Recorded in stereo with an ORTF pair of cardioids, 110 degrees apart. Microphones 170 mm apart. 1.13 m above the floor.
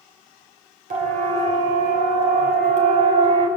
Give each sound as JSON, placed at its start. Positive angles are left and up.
{"t": 0.9, "sound": "a siren", "azimuth_deg": -45, "distance_m": 6.5}